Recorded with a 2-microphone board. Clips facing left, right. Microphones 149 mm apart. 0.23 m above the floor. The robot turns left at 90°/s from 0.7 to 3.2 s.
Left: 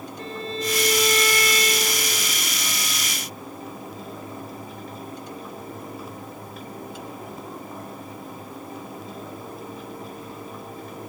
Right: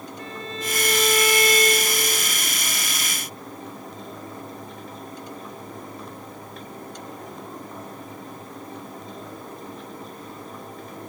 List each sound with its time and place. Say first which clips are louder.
0.2 s a violin: left 4 dB; 35° left, 2.5 m; by 2.3 s 105° right, 2.5 m